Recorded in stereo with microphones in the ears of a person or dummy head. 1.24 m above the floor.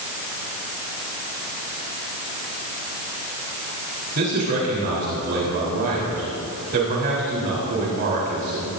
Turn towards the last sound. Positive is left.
turn(degrees=-50)  # may be behind; listen again after turning